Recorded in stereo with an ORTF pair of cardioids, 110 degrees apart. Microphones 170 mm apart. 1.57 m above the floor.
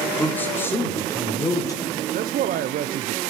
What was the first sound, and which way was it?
A man speaking, 10° left.